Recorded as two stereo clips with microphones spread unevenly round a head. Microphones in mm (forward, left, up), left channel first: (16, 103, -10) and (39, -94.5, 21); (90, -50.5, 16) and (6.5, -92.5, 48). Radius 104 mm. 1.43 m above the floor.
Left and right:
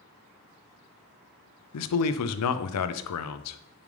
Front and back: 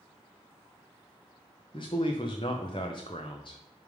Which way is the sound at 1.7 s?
95° left.